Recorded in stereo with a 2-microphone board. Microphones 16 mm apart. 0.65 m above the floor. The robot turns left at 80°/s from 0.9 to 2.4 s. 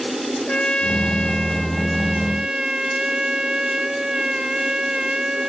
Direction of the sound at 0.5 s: 80° left.